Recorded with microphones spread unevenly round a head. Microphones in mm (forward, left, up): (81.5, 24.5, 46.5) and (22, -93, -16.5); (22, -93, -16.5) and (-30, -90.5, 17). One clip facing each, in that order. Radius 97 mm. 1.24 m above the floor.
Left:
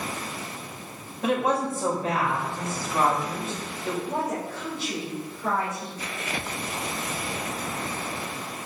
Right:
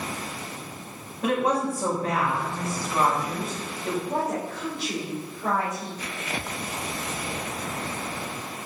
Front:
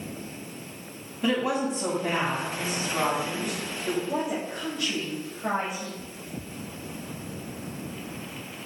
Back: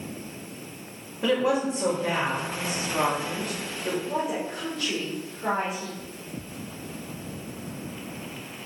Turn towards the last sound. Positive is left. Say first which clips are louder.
# right 1 dB, back 1 dB
turn(degrees=165)